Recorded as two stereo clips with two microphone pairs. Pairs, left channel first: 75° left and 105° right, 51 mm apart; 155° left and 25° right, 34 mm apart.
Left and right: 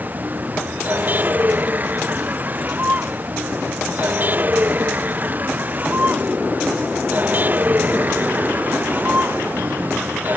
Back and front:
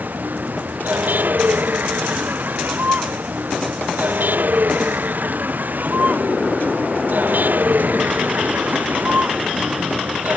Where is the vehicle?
50° right.